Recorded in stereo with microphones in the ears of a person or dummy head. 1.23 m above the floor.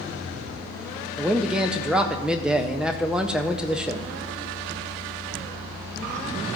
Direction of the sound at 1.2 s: 5° right (ahead or behind).